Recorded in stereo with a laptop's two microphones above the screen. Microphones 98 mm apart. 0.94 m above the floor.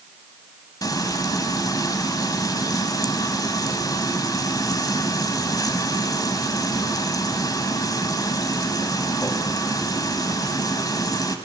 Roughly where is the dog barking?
No dog barking in this recording.